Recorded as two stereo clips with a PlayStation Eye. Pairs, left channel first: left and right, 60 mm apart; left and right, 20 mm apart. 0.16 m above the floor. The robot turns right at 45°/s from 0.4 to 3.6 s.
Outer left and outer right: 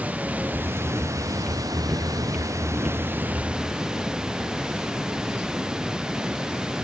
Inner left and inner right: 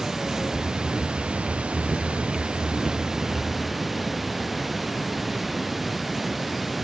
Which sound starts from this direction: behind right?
Running water, at 0.0 s.